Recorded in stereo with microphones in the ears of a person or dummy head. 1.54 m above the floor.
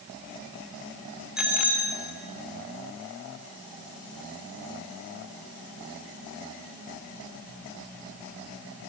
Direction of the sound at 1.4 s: 5° right (ahead or behind).